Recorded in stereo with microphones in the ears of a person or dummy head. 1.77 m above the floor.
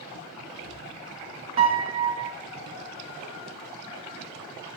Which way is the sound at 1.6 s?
30° right (ahead or behind).